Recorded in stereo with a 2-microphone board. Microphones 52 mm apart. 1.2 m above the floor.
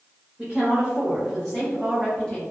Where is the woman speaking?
10° right (ahead or behind), 1.6 m; by 2.4 s 25° left (ahead or behind), 0.6 m.